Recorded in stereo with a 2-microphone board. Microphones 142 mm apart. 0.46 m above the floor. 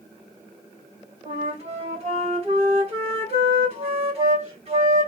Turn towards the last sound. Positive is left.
turn(degrees=-45)  # may be behind; listen again after turning